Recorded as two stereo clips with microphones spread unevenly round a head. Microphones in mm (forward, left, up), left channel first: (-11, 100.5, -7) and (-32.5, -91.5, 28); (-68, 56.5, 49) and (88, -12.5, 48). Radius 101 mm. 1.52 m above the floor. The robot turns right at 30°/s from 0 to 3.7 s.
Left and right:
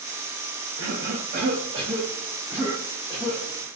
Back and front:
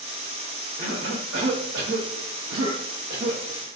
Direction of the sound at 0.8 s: 60° right.